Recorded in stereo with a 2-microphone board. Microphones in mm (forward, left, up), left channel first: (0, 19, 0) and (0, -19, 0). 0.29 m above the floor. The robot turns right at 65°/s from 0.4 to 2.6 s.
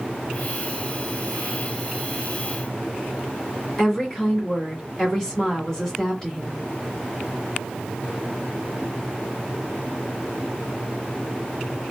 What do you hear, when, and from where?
3.8 s a woman speaking: 15° left (ahead or behind), 2 m